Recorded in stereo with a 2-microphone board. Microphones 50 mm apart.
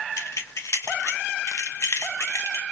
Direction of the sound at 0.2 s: 75° left (ahead or behind).